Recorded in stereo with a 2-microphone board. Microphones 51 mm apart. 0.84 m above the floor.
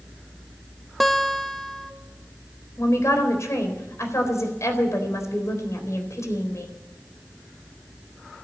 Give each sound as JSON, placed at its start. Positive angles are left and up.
{"t": 1.0, "sound": "a guitar", "side_deg": 0, "distance_m": 1.1}
{"t": 2.8, "sound": "a woman speaking", "side_deg": 80, "distance_m": 4.0}